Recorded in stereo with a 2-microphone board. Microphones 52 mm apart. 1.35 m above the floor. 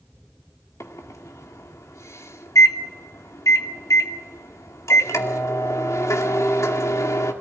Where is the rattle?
I don't hear a rattle.